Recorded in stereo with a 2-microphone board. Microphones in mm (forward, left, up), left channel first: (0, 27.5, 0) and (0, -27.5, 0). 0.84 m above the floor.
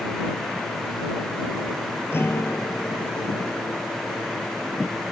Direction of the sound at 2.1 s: 50° left (ahead or behind).